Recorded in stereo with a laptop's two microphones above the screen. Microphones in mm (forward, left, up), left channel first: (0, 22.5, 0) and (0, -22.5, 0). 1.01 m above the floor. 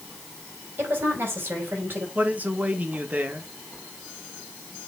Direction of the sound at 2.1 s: 40° right (ahead or behind).